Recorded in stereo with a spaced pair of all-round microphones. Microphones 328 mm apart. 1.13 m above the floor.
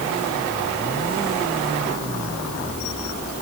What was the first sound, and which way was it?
Only background noise.